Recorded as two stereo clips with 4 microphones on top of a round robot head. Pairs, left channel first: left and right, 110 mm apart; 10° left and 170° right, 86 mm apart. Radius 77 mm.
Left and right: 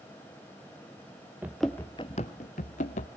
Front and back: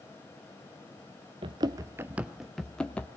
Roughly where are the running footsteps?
Behind.